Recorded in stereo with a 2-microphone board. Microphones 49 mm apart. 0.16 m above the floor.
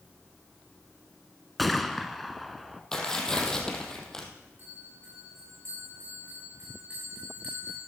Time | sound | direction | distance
1.6 | a gunshot | centre (ahead or behind) | 1.0 m
2.9 | tearing paper | 10° left (ahead or behind) | 3 m
4.6 | a bell | 40° right (ahead or behind) | 8.5 m